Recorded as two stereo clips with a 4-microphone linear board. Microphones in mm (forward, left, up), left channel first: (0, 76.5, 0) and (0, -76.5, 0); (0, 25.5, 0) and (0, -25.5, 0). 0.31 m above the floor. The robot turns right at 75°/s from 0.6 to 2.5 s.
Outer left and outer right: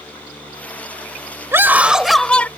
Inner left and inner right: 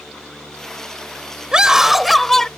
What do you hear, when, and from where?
1.5 s a scream: 15° right (ahead or behind); by 2.5 s 10° left (ahead or behind)